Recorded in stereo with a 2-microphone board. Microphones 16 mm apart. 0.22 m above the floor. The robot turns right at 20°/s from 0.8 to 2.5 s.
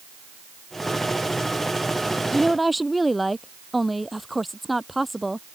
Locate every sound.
2.3 s a woman speaking: centre (ahead or behind); by 5.5 s 5° right (ahead or behind)